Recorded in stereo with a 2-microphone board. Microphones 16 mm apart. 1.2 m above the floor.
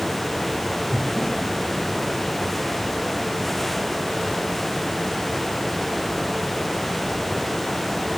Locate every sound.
0.9 s breathing: 20° left (ahead or behind), 8.5 m